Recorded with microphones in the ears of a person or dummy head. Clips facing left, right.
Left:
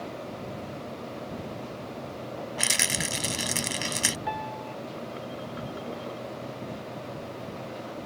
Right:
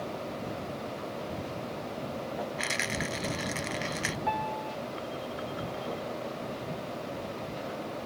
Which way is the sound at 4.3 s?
5° left (ahead or behind).